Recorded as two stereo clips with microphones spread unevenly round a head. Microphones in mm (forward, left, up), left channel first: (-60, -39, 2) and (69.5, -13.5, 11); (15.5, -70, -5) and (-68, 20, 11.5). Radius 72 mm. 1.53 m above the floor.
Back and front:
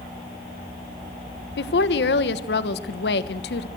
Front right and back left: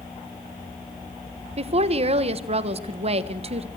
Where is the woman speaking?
170° left, 1.2 m.